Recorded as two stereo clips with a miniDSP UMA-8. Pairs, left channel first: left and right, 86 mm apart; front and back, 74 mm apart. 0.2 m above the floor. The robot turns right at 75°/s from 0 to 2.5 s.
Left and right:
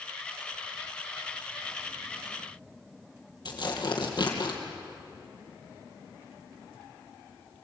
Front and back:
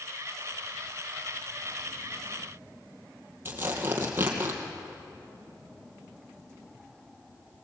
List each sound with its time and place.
3.5 s tearing paper: 120° left, 3 m